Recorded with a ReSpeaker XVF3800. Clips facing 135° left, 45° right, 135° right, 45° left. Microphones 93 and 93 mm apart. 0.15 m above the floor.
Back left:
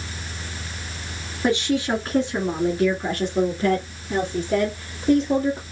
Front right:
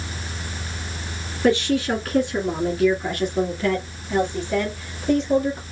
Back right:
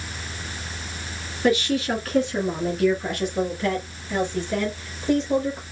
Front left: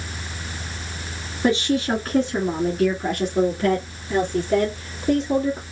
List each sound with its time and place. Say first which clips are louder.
1.4 s a woman speaking: front right 2 dB, front left 1 dB; 75° left, 1.8 m; by 5.6 s 90° left, 3.5 m